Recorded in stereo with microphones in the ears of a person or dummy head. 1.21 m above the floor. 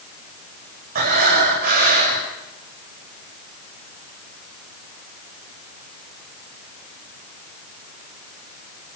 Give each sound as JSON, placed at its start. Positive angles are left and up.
{"t": 0.9, "sound": "breathing", "side_deg": -50, "distance_m": 7.0}